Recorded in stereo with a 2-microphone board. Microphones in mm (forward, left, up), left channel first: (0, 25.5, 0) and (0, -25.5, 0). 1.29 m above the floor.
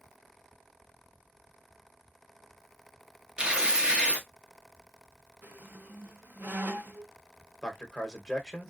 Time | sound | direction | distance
3.4 | tearing paper | 20° right (ahead or behind) | 1.0 m
5.4 | a squeak | 40° right (ahead or behind) | 0.6 m
7.6 | a man speaking | 10° left (ahead or behind) | 1.1 m